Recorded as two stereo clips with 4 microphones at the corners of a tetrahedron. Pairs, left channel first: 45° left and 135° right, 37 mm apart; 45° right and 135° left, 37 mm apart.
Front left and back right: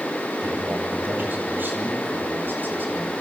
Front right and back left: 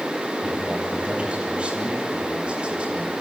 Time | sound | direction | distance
0.4 | a man speaking | 165° right | 9 m